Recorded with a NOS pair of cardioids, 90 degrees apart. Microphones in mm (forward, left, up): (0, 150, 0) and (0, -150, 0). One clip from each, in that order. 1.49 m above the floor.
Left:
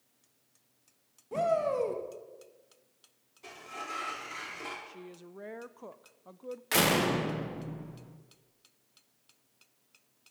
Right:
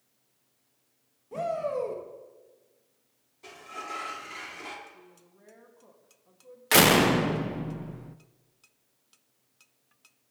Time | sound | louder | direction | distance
1.3 | a shout | left 2 dB | 20° left | 2 m
3.4 | a sliding door | right 2 dB | 5° right | 3 m
4.9 | a woman speaking | left 5 dB | 65° left | 0.8 m
6.7 | a door slam | right 7 dB | 40° right | 0.7 m